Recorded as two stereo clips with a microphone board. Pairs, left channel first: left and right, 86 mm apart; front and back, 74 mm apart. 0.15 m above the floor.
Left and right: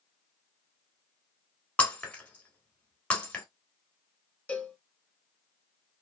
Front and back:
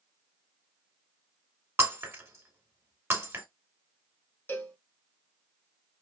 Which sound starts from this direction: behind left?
Breaking glass, at 1.8 s.